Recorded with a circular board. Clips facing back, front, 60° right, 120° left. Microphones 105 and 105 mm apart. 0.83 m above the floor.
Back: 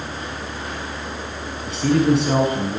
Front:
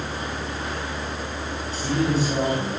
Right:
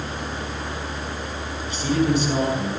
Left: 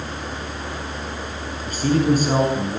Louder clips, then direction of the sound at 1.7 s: Back 7 dB, left 3 dB; 160° left.